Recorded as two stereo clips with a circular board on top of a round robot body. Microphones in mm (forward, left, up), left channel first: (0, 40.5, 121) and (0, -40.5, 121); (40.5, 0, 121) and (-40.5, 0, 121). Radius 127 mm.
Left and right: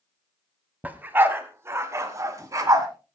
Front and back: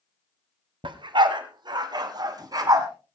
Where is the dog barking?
160° right, 1.5 m; by 2.9 s 135° right, 2.5 m.